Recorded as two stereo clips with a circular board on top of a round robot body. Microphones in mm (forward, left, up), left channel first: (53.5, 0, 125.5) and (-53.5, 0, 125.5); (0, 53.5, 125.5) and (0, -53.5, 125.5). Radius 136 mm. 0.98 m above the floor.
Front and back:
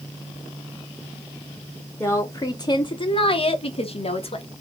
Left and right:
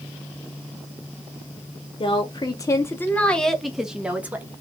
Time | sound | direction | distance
2.0 | a woman speaking | 65° left | 1.1 m